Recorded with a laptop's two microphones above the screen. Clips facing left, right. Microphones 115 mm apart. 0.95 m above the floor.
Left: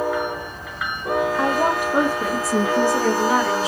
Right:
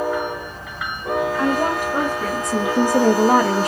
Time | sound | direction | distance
1.4 | a woman speaking | 20° left (ahead or behind) | 3 m